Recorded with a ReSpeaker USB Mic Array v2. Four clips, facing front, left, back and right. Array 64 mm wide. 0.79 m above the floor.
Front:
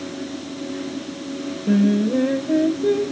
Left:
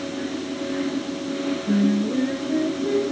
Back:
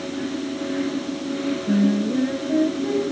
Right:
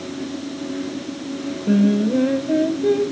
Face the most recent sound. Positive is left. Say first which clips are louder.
# right 5 dB, front 3 dB
turn(degrees=-40)